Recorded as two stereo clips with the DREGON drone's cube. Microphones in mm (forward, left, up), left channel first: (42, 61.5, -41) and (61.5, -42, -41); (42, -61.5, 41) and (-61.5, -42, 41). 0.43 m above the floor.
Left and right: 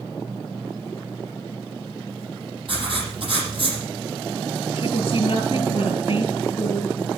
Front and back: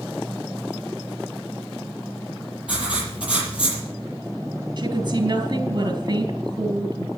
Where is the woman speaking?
130° left, 4 m.